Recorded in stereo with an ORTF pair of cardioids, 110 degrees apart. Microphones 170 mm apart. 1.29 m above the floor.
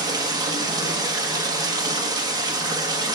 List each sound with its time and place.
0.0 s running water: 25° right, 1.3 m